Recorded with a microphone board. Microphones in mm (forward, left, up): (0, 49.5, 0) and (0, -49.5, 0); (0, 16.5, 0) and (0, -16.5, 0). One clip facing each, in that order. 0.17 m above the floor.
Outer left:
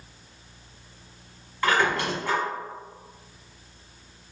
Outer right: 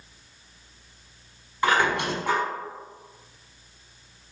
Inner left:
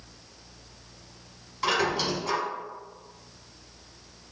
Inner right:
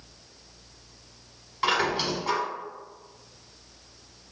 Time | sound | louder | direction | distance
1.6 | a squeak | outer right 1 dB, inner right 1 dB | 20° right (ahead or behind) | 1.1 m